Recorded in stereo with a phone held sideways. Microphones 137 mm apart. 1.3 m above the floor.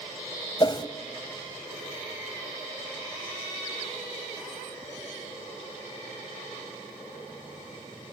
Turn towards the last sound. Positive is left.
turn(degrees=35)  # may be behind; listen again after turning